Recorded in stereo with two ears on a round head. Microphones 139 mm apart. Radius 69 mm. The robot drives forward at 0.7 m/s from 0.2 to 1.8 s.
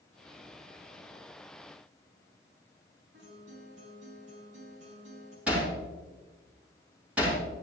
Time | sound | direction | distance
3.1 | a guitar | 70° right (ahead or behind) | 5.5 m
5.5 | hammering | 10° right (ahead or behind) | 4 m